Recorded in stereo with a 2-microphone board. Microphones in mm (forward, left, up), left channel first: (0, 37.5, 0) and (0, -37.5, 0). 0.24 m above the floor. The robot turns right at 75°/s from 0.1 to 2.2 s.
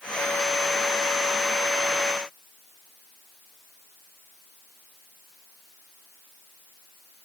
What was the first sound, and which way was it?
Only background noise.